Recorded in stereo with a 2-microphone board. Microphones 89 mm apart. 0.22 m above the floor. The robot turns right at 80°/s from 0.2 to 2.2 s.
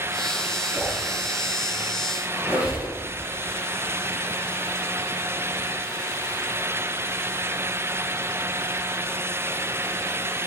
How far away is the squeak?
About 3.5 m.